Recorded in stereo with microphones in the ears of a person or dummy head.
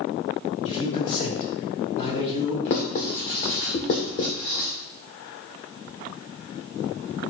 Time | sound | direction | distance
0.7 | a man speaking | 40° left (ahead or behind) | 4 m
2.6 | writing | 50° left (ahead or behind) | 1.7 m